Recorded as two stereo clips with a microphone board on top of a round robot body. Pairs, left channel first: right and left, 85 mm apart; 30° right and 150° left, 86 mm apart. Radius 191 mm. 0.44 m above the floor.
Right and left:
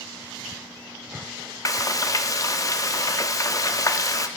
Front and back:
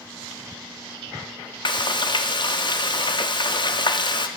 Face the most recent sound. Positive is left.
turn(degrees=-45)